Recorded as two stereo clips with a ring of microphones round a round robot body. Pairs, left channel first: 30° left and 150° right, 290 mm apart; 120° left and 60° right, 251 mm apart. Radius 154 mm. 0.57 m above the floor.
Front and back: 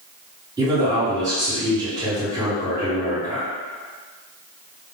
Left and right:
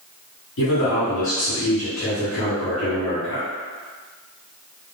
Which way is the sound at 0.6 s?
135° left.